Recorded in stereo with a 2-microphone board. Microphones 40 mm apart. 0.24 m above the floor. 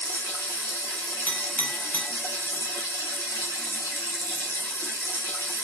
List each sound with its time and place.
0.0 s running water: 80° left, 1.6 m
1.3 s a clink: 45° left (ahead or behind), 1.2 m